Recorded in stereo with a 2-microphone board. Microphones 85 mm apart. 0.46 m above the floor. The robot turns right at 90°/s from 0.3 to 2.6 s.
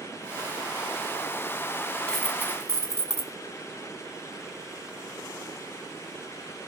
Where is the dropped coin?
170° left, 1.0 m; by 3.3 s 145° right, 1.0 m.